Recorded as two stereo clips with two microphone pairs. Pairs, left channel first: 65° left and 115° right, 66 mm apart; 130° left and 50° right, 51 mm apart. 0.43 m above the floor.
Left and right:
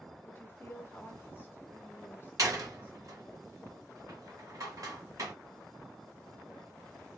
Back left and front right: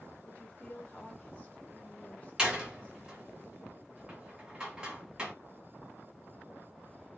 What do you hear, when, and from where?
0.2 s a woman speaking: 90° left, 1.0 m
2.4 s a door slam: 120° right, 1.2 m